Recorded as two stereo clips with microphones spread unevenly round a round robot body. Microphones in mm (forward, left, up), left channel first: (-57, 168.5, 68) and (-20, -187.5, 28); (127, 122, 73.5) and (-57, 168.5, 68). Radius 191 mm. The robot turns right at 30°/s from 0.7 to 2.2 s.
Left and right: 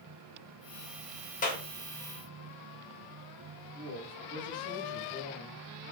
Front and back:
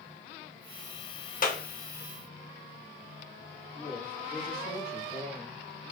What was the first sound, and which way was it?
A clap, 25° left.